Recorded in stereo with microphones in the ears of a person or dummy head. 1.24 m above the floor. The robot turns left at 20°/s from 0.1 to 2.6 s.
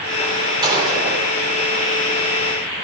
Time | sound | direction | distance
0.6 | a gunshot | 30° right (ahead or behind) | 4 m